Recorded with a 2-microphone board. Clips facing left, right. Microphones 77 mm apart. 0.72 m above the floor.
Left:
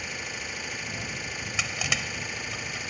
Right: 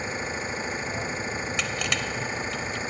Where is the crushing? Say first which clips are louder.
Left 1 dB; 5° left (ahead or behind).